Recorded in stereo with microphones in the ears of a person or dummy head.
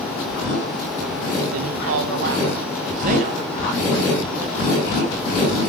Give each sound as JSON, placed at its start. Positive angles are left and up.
{"t": 1.5, "sound": "a man speaking", "side_deg": -75, "distance_m": 1.4}